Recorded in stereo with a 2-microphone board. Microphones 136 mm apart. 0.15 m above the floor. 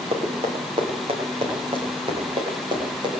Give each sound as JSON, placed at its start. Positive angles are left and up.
{"t": 0.1, "sound": "running footsteps", "side_deg": -50, "distance_m": 7.0}